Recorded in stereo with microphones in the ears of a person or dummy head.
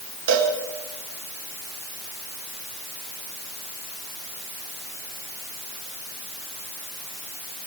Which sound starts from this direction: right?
A cowbell, at 0.3 s.